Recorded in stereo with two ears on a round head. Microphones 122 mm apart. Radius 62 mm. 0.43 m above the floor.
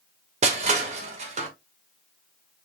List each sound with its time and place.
0.4 s crushing: 50° right (ahead or behind), 1.1 m